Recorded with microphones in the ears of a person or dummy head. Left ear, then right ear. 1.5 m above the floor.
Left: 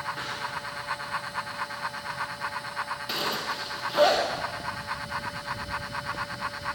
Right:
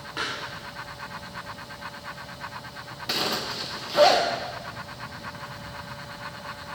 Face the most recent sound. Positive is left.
turn(degrees=-5)  # may be behind; listen again after turning